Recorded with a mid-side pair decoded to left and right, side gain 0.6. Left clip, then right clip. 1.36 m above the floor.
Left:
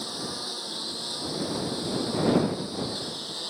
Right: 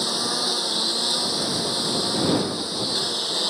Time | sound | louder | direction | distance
0.0 | a lawn mower | right 10 dB | 45° right | ?